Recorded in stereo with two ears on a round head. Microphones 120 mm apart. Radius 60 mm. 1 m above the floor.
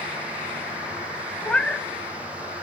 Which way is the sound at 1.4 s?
10° left (ahead or behind).